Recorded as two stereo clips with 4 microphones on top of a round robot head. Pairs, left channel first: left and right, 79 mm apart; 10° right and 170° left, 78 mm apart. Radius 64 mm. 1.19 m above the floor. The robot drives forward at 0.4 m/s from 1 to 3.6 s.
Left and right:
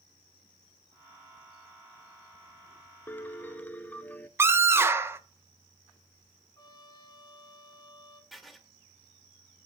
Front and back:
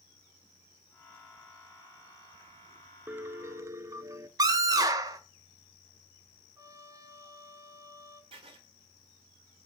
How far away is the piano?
About 0.6 m.